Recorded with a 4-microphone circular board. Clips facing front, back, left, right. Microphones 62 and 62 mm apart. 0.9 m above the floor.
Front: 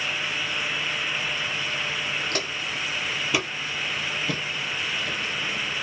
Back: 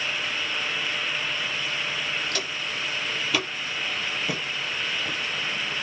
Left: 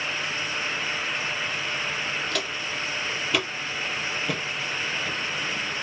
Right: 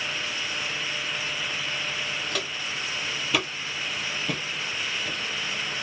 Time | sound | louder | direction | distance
2.3 | footsteps | front 1 dB, left 2 dB | 5° right | 1.2 m